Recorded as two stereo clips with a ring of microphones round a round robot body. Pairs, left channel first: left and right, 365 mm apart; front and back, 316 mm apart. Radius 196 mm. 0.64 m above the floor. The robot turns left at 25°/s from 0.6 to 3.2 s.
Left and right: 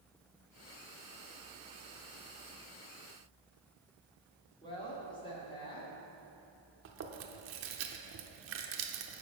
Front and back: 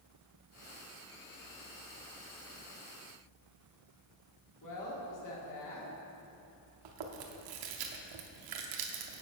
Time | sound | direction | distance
4.6 | a woman speaking | 15° left | 1.9 m
6.8 | chewing | 150° right | 0.6 m